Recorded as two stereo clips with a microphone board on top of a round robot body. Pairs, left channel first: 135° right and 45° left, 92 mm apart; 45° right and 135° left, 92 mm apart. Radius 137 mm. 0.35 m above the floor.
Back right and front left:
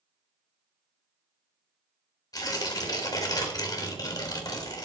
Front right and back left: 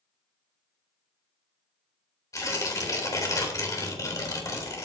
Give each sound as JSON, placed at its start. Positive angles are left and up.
{"t": 2.3, "sound": "tearing paper", "azimuth_deg": -95, "distance_m": 3.5}